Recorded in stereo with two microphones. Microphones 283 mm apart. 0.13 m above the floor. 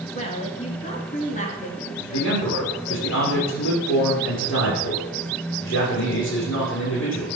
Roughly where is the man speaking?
Left.